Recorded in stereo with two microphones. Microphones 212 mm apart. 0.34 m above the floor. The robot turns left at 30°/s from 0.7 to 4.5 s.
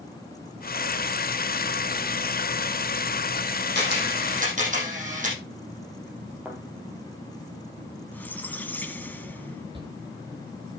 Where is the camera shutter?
60° right (ahead or behind), 7 m; by 5.4 s 35° right (ahead or behind), 7 m.